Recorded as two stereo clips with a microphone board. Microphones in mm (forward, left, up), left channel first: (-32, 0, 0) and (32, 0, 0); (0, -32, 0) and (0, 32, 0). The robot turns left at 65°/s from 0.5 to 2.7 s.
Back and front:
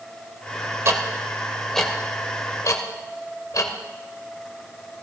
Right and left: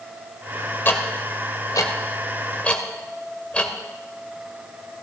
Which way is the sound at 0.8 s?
35° right.